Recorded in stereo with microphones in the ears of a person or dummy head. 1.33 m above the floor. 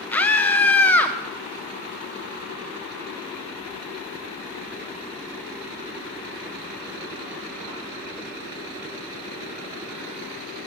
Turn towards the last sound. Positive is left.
turn(degrees=10)  # may be behind; listen again after turning